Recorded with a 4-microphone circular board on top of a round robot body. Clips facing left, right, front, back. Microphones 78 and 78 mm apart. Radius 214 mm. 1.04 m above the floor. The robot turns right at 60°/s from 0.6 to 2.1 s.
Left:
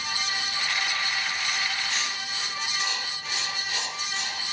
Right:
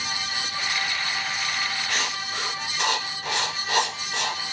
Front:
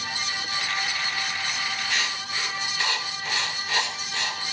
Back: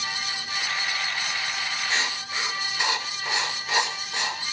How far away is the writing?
About 2.5 m.